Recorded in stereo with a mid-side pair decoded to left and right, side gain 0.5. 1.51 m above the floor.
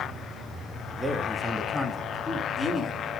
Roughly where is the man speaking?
Ahead.